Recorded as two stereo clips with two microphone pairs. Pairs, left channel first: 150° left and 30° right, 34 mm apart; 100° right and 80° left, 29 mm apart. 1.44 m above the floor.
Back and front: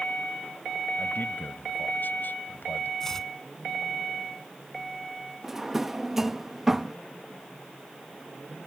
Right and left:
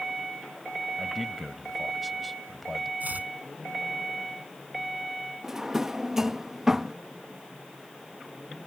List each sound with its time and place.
1.0 s a man speaking: 175° left
3.0 s chopping: 70° left
5.4 s a drawer: 35° left